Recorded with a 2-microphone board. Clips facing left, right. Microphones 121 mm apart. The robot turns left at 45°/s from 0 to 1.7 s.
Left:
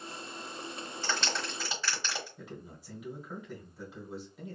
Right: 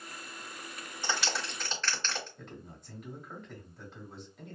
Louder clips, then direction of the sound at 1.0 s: Right 1 dB; 15° right (ahead or behind).